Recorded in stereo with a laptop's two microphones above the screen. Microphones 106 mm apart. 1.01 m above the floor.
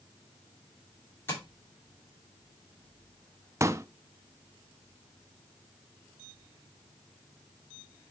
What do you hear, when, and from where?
1.3 s tapping: 25° left (ahead or behind), 2.5 m
3.6 s a pop: 30° right (ahead or behind), 0.5 m